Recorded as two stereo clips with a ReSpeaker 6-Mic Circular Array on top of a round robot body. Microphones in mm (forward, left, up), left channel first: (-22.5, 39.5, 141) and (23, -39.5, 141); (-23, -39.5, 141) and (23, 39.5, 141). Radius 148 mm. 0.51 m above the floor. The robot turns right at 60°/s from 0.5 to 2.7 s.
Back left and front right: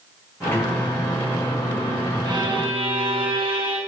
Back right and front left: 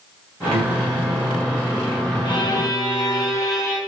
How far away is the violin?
About 1.8 m.